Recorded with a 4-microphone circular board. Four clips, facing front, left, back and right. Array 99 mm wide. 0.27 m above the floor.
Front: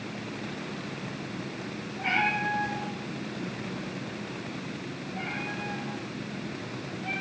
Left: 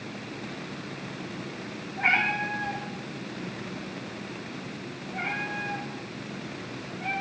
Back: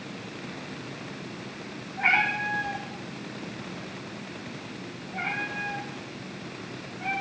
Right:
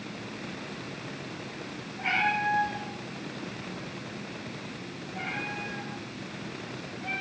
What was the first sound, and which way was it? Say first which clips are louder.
A cat meowing: left 1 dB, back 2 dB; 155° left.